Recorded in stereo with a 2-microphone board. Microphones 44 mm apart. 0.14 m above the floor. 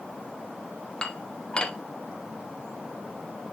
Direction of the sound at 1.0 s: 20° left (ahead or behind).